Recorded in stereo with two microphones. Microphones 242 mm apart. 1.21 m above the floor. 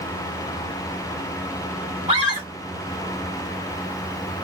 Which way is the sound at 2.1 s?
30° right (ahead or behind).